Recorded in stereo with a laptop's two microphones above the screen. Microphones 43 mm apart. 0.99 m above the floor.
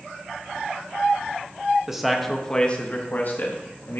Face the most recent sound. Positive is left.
turn(degrees=60)  # may be behind; listen again after turning